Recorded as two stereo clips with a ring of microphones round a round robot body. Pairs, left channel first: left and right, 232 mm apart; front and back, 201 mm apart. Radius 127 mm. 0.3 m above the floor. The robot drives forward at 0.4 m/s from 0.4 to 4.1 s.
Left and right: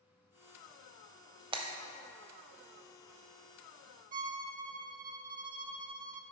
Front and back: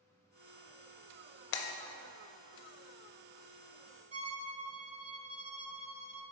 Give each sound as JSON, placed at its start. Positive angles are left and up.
{"t": 1.5, "sound": "breaking glass", "azimuth_deg": -20, "distance_m": 0.6}
{"t": 4.1, "sound": "a violin", "azimuth_deg": -135, "distance_m": 0.5}